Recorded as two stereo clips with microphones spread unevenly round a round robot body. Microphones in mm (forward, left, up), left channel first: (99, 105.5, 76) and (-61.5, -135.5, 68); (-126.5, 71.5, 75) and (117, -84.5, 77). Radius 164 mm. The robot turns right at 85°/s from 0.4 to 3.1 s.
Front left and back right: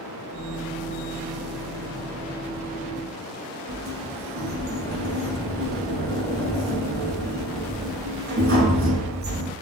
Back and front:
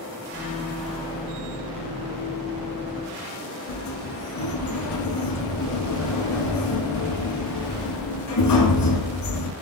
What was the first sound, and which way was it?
A sliding door, straight behind.